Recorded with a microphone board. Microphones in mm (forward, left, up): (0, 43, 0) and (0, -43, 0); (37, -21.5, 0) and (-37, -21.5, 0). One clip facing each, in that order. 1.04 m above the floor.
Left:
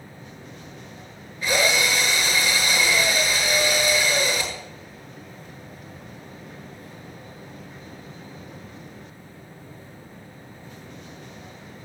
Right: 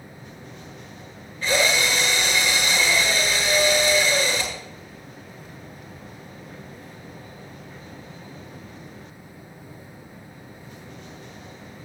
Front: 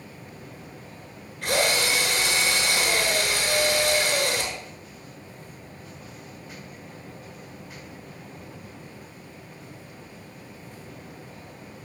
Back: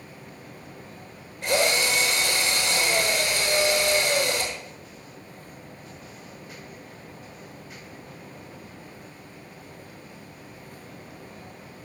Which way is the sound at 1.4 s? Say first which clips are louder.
Even, back 1 dB; 15° left.